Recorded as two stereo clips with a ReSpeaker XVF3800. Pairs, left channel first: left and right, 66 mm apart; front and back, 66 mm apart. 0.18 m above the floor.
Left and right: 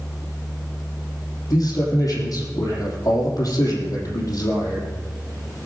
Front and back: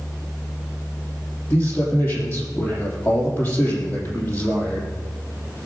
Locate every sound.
1.5 s a man speaking: 55° left, 4.5 m